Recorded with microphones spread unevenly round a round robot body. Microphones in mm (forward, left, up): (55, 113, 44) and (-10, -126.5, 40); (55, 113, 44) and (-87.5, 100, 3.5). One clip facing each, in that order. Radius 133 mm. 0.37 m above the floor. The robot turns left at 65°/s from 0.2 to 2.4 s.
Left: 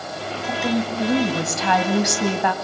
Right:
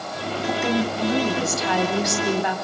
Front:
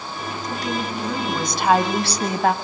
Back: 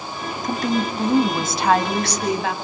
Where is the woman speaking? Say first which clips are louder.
Even, back 5 dB; 175° left, 3.5 m; by 2.5 s 50° left, 3.5 m.